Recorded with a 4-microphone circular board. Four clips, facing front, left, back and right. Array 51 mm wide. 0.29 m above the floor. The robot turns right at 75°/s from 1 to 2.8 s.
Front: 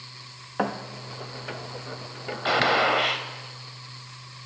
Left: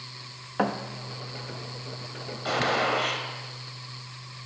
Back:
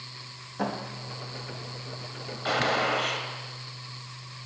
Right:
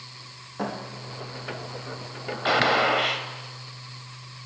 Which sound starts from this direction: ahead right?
A gunshot, at 2.5 s.